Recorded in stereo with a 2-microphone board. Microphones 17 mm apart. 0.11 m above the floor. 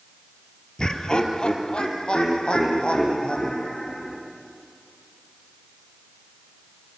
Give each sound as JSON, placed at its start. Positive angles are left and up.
{"t": 0.8, "sound": "laughter", "side_deg": 45, "distance_m": 2.5}